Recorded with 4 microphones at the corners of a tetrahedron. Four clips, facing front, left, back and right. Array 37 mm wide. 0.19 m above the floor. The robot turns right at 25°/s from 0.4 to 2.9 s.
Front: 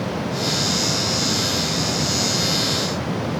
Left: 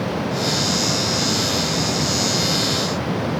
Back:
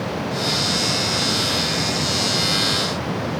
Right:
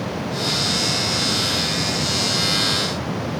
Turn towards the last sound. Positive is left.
No sound to turn to.